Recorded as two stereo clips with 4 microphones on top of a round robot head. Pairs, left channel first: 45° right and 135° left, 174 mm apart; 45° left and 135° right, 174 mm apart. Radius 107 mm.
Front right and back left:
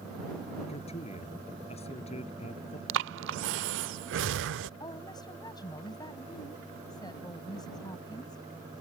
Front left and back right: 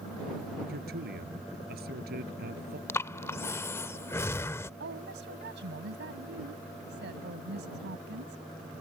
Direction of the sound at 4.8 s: 115° right.